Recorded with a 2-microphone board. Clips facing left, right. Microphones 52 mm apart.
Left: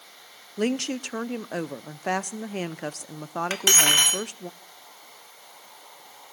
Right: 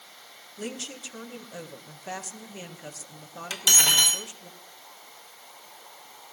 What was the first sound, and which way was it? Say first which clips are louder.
A woman speaking: left 11 dB; 70° left (ahead or behind).